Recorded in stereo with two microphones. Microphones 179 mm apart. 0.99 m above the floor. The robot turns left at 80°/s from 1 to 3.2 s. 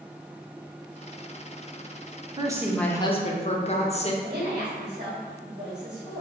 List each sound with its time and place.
2.4 s a woman speaking: 150° right, 0.6 m; by 4.1 s 140° left, 0.6 m
4.2 s a woman speaking: 55° right (ahead or behind), 1.7 m